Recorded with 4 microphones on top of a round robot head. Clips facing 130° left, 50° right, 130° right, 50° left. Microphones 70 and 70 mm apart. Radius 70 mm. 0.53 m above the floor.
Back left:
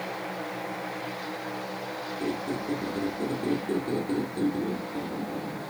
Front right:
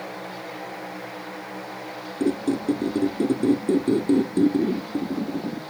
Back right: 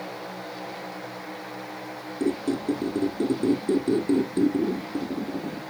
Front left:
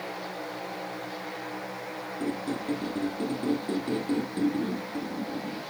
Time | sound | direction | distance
2.2 | a squeak | 65° right | 0.7 m